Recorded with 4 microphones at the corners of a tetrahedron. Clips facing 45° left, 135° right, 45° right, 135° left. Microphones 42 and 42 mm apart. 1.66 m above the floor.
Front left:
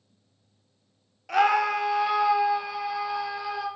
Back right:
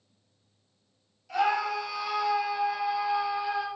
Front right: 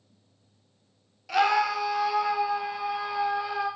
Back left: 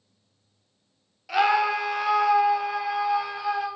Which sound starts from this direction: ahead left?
A scream, at 1.3 s.